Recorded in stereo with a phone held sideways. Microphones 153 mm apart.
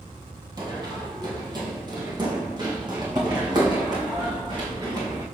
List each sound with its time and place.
0.6 s running footsteps: 25° right (ahead or behind), 1.8 m; by 5.2 s 30° right (ahead or behind), 4 m